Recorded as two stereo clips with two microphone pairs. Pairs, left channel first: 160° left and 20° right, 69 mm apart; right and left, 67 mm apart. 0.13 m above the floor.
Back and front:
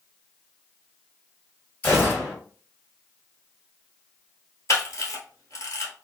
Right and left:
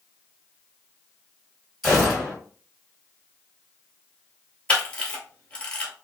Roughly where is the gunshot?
Behind.